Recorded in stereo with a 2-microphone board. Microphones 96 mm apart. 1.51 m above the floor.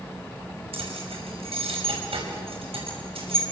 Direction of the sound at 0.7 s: 80° right.